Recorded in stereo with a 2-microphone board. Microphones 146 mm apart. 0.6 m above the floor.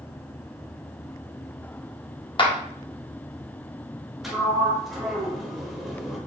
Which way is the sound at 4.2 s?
Centre (ahead or behind).